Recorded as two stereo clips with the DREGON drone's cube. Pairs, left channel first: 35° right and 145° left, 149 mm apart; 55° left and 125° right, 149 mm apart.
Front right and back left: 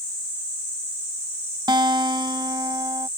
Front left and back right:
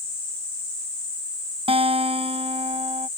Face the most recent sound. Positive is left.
turn(degrees=-160)